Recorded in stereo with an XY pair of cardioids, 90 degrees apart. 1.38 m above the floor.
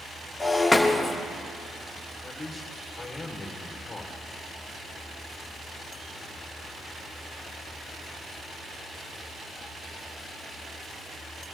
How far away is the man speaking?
About 2.5 m.